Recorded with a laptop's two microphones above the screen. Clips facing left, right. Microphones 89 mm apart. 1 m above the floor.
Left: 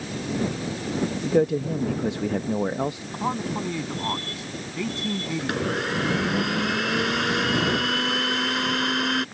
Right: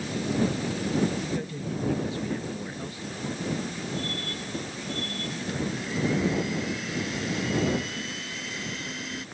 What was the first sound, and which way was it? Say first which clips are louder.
A man speaking: left 11 dB; 75° left (ahead or behind).